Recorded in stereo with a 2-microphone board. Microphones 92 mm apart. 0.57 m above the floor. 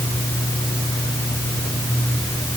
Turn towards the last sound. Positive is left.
No sound to turn to.